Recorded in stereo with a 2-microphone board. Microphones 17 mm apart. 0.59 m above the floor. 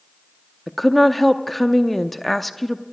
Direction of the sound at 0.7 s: 5° left (ahead or behind).